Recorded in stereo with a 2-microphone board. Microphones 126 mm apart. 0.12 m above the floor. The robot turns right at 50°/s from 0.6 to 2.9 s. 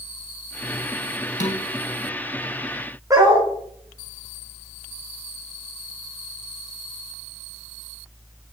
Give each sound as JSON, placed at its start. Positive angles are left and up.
{"t": 1.4, "sound": "dishes clattering", "side_deg": 70, "distance_m": 3.5}
{"t": 3.1, "sound": "a dog barking", "side_deg": -25, "distance_m": 4.5}